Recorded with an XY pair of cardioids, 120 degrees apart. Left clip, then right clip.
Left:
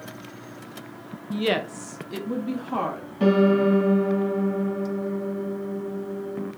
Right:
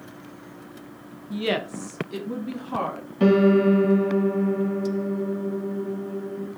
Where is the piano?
20° right, 1.7 m.